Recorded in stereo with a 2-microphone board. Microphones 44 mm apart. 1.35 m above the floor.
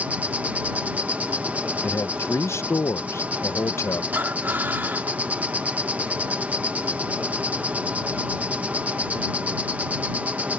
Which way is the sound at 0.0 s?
35° right (ahead or behind).